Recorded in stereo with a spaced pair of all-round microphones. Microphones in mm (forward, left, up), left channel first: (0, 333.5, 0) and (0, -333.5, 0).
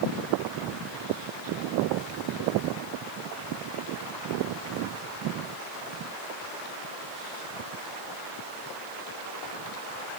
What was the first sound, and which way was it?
Only background noise.